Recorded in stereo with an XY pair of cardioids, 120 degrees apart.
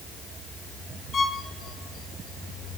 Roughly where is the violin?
Ahead left.